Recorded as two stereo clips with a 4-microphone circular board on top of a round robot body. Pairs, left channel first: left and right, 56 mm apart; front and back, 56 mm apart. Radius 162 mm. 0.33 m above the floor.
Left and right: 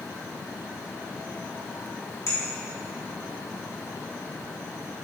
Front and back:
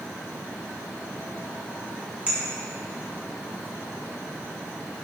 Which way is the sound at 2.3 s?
110° left.